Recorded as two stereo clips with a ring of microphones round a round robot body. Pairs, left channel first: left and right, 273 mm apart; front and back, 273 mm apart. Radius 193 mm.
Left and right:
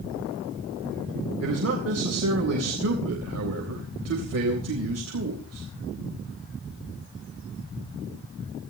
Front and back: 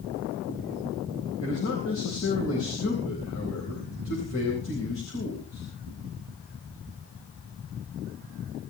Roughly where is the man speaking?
Ahead right.